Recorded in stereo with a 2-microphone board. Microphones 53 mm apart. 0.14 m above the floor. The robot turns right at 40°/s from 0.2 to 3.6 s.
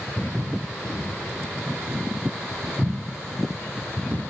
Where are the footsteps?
65° left (ahead or behind), 3.5 m; by 4.3 s 50° right (ahead or behind), 1.1 m.